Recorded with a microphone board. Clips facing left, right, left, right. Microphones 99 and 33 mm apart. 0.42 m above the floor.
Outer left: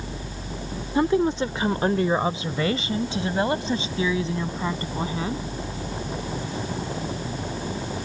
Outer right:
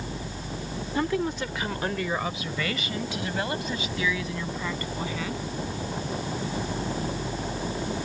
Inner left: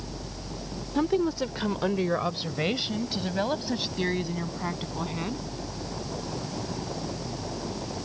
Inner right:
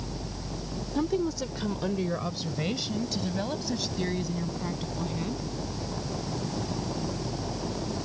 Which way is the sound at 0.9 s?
25° left (ahead or behind).